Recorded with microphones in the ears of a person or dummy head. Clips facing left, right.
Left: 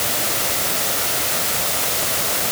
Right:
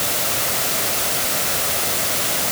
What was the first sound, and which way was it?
Only background noise.